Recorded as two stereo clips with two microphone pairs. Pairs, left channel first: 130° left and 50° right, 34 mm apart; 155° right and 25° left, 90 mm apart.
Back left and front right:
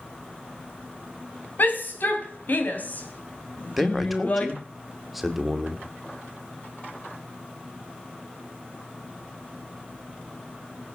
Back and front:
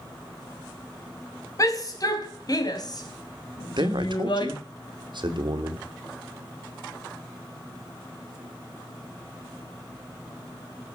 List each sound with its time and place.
1.6 s a shout: 160° left, 4.5 m; by 4.5 s straight behind, 3.5 m
3.8 s a man speaking: 35° left, 2 m